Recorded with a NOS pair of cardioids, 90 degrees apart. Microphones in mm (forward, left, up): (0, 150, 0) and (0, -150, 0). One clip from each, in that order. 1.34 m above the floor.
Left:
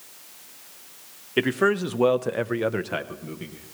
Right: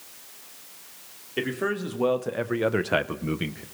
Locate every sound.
1.4 s a man speaking: 45° left, 1.5 m; by 3.6 s 65° right, 1.0 m